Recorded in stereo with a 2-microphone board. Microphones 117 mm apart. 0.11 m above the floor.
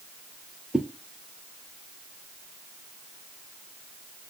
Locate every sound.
0.7 s a whoosh: 5° right (ahead or behind), 0.6 m